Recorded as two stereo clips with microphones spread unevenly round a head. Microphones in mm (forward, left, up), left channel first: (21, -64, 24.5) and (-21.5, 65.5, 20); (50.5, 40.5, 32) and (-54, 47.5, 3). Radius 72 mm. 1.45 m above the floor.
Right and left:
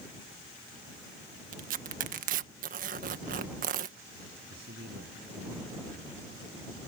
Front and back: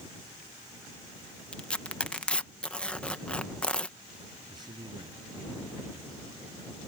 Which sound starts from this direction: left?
Tearing paper, at 1.5 s.